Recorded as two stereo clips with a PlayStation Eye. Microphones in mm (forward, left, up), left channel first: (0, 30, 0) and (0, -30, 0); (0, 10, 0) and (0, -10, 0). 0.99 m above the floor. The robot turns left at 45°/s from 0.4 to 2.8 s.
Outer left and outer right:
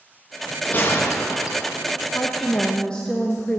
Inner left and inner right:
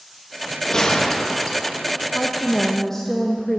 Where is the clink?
I don't hear a clink.